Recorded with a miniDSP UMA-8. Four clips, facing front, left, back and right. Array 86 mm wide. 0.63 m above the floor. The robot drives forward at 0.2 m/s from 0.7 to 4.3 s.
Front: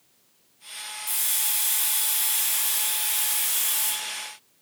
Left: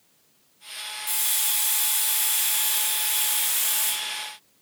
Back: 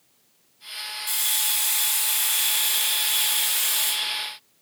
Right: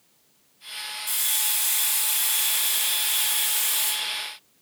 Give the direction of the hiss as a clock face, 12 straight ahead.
7 o'clock.